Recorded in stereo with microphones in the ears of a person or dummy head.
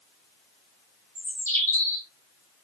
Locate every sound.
1.1 s a bird: 15° left (ahead or behind), 2 m